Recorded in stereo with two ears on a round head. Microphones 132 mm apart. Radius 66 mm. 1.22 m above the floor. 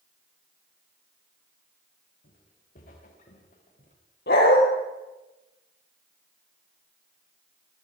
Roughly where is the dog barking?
Left.